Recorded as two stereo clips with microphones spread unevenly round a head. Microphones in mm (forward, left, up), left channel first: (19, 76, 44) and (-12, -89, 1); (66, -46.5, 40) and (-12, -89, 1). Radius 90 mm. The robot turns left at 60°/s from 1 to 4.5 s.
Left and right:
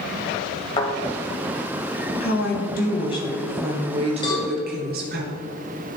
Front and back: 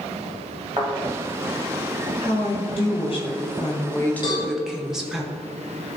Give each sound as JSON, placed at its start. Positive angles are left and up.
{"t": 0.8, "sound": "a thud", "azimuth_deg": 130, "distance_m": 2.0}
{"t": 2.2, "sound": "a woman speaking", "azimuth_deg": 70, "distance_m": 1.3}
{"t": 4.2, "sound": "a cowbell", "azimuth_deg": 25, "distance_m": 3.0}